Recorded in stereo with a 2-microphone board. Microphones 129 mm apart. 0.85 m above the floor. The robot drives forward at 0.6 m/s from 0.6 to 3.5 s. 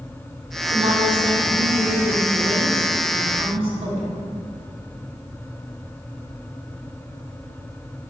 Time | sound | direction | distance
0.7 | a woman speaking | 70° right (ahead or behind) | 2.5 m